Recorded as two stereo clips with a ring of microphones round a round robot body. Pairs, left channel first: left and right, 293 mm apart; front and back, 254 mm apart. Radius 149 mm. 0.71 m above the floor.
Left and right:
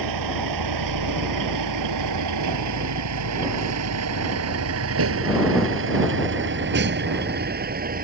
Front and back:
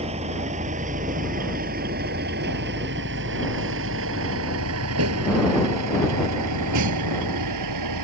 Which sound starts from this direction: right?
A vehicle, at 0.0 s.